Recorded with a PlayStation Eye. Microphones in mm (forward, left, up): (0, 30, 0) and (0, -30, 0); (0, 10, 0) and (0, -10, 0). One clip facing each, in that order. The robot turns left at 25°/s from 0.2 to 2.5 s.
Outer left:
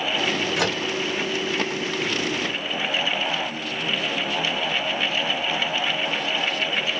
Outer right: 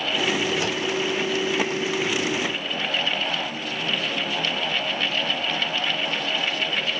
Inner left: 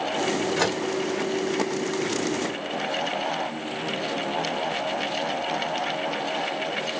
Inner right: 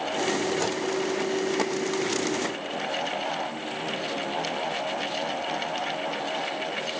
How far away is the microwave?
About 1.1 m.